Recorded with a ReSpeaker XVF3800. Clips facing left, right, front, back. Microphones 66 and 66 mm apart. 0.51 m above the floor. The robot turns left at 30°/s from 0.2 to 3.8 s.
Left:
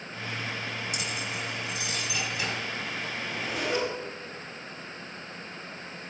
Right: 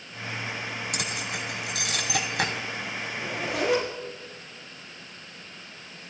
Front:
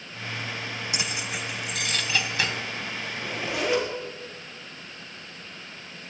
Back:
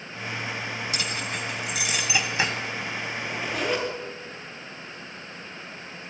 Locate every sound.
0.9 s keys jangling: 70° right, 2 m; by 2.5 s 115° right, 2 m
3.1 s a zipper: 65° right, 5.5 m; by 3.9 s 85° right, 5.5 m